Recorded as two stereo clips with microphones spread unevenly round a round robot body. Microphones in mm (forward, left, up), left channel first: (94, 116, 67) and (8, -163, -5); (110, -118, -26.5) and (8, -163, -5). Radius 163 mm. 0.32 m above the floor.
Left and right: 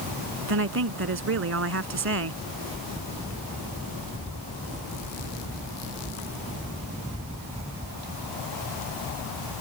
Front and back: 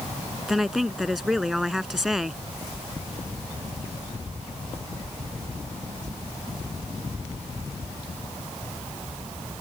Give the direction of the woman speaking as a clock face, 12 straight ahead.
2 o'clock.